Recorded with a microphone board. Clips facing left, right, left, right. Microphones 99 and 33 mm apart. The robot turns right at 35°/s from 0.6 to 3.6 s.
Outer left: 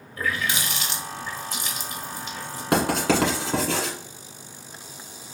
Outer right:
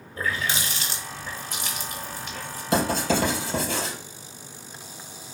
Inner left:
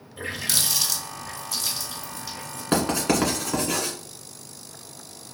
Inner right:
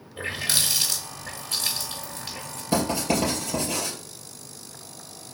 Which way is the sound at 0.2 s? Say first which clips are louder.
Outer left 1 dB, inner right 1 dB; 30° right (ahead or behind).